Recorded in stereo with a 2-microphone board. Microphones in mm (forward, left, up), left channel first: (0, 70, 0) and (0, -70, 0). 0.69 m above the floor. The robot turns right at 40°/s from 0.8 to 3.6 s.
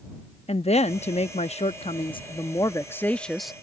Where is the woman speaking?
75° left; by 3.5 s straight behind.